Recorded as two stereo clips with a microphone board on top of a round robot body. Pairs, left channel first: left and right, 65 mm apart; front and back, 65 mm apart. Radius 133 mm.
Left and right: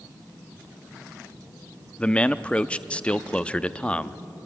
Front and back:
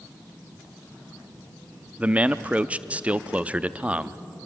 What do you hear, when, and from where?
2.0 s a man speaking: 140° left, 0.8 m